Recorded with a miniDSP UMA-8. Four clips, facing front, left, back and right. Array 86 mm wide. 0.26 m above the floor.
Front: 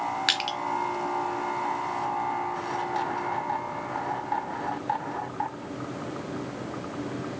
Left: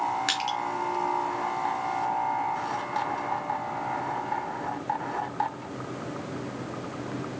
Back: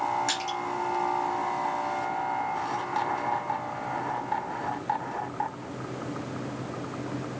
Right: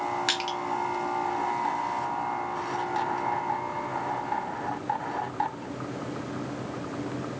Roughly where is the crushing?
Ahead.